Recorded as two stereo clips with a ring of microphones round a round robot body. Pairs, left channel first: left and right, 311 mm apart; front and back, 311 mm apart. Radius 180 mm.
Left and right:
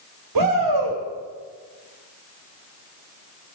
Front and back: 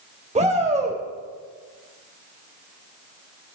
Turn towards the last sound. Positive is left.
turn(degrees=-110)